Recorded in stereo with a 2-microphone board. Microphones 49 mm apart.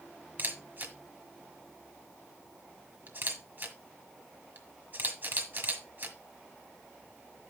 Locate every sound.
0.4 s a camera shutter: 45° right (ahead or behind), 1.5 m